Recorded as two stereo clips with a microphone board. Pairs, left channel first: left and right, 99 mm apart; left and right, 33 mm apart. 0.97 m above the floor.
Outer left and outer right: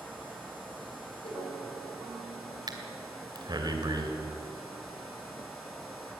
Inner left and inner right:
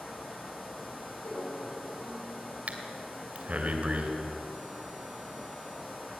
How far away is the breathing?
About 2 m.